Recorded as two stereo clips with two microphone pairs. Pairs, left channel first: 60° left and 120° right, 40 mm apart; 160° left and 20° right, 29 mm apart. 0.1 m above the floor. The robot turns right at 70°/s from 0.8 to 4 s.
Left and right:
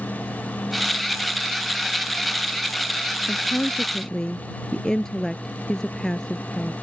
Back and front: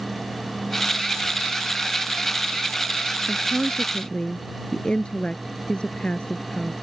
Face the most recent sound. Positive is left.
turn(degrees=125)